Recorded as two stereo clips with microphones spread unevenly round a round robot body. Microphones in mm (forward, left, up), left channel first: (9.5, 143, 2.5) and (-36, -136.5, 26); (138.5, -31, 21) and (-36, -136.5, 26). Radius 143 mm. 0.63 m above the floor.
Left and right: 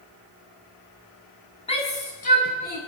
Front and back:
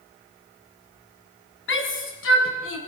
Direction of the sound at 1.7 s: 10° left.